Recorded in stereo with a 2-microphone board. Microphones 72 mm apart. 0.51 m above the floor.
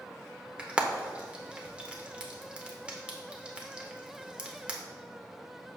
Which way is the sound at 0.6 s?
15° right (ahead or behind).